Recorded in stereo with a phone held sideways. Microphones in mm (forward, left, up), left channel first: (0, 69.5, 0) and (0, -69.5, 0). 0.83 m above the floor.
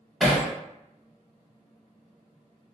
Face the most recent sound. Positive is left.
turn(degrees=0)  # may be behind; listen again after turning